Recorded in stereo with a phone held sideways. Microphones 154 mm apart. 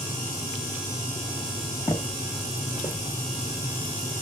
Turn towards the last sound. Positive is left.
turn(degrees=30)  # may be behind; listen again after turning